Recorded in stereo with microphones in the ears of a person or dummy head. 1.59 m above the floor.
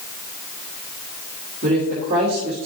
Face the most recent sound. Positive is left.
turn(degrees=-40)  # may be behind; listen again after turning